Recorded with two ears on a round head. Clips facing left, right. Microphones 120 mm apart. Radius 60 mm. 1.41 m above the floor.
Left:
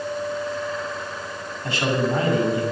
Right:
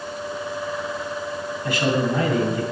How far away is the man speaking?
About 8.5 m.